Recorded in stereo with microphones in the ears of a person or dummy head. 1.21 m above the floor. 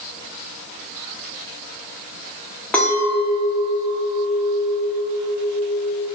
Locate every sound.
2.7 s a clink: 5° left (ahead or behind), 0.5 m